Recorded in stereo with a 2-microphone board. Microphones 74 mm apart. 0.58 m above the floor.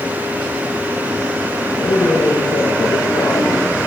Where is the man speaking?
80° left, 8 m.